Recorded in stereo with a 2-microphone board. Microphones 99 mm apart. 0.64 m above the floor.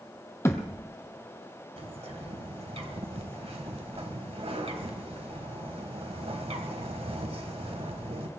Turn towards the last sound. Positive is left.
turn(degrees=-75)  # may be behind; listen again after turning